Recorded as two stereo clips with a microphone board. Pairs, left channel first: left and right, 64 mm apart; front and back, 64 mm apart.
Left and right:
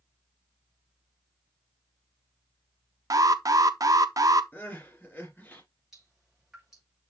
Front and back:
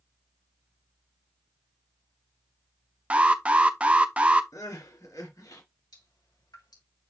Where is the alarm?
110° right, 0.7 m.